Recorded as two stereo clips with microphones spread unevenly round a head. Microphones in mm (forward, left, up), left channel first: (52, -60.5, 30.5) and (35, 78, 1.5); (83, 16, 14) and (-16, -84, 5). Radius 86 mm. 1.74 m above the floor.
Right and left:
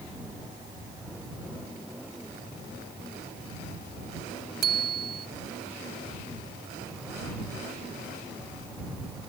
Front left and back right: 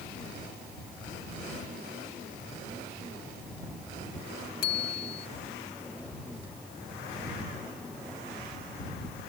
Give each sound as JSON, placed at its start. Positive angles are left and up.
{"t": 4.6, "sound": "a bicycle bell", "azimuth_deg": 85}